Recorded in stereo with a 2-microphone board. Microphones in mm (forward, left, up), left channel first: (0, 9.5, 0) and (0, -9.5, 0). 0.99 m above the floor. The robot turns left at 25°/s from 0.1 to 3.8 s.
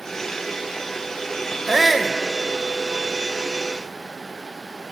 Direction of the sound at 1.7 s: 10° right (ahead or behind).